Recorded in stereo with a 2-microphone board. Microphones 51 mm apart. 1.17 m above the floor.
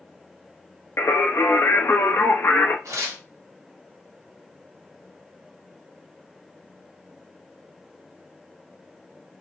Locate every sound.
1.0 s singing: 50° left (ahead or behind), 0.7 m
2.9 s tearing paper: 80° right, 1.2 m